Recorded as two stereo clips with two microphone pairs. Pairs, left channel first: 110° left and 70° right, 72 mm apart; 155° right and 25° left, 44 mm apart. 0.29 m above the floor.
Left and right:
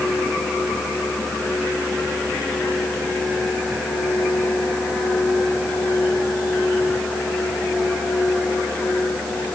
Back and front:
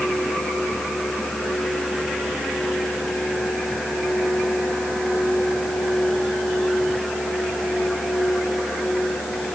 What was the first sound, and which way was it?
Only background noise.